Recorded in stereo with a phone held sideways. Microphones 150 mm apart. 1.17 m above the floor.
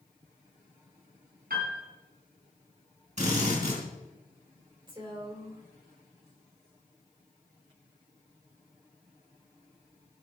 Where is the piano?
80° right, 4 m.